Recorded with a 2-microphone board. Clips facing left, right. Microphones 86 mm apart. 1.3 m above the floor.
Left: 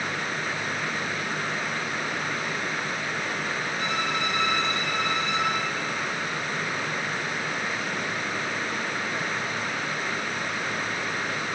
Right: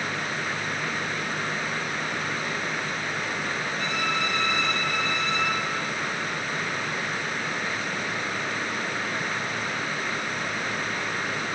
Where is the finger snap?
No finger snap in this recording.